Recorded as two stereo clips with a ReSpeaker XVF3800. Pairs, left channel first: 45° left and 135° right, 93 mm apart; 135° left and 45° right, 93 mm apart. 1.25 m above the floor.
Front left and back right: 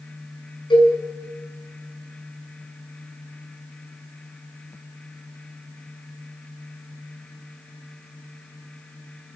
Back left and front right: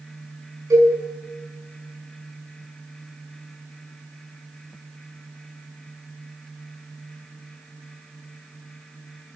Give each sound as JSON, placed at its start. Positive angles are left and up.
{"t": 0.7, "sound": "a cowbell", "azimuth_deg": 10, "distance_m": 6.5}